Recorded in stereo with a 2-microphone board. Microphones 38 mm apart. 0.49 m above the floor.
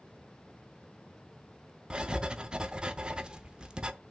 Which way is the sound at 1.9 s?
25° right (ahead or behind).